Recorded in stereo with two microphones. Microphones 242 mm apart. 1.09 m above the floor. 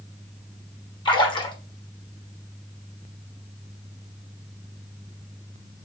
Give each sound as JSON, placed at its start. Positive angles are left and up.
{"t": 1.1, "sound": "a splash", "side_deg": 20, "distance_m": 1.5}